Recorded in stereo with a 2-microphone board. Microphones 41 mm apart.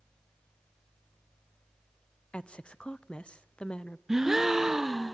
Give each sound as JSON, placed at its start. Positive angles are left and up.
{"t": 2.3, "sound": "a woman speaking", "side_deg": 25, "distance_m": 0.7}
{"t": 4.1, "sound": "a gasp", "side_deg": -15, "distance_m": 0.5}